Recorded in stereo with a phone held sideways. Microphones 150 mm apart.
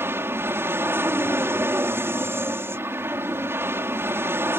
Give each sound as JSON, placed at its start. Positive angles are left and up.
{"t": 0.0, "sound": "an aircraft", "side_deg": -15}